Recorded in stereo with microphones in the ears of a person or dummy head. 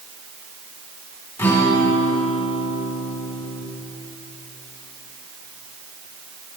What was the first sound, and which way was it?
A guitar, 20° left (ahead or behind).